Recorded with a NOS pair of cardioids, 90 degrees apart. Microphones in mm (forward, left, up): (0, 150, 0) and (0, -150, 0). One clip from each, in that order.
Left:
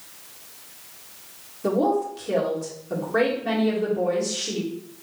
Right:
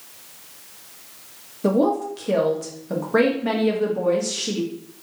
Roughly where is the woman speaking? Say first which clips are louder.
Right 2 dB; ahead right.